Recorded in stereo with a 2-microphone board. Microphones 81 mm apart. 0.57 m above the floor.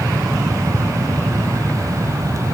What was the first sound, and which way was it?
Only background noise.